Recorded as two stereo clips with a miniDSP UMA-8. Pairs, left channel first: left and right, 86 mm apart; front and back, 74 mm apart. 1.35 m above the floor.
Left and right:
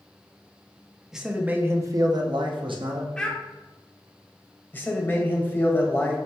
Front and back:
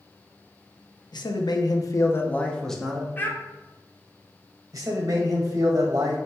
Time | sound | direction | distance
1.1 | a man speaking | 5° right | 0.8 m
3.2 | a child speaking | 20° left | 0.7 m
4.7 | a man speaking | 155° left | 1.2 m